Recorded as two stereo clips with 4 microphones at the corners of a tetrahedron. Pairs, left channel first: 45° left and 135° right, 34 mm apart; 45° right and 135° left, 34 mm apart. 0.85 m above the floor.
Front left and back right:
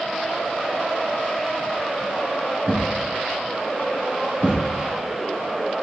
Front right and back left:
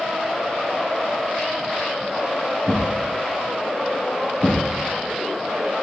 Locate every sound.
2.7 s a thud: 85° right, 5.5 m